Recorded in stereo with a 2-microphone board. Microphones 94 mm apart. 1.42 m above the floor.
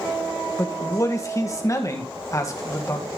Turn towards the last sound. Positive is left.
turn(degrees=35)  # may be behind; listen again after turning